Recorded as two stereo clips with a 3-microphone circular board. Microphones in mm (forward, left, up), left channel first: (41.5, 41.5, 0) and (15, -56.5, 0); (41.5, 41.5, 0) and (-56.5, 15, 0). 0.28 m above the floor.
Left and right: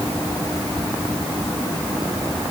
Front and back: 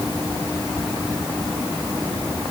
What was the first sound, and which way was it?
Only background noise.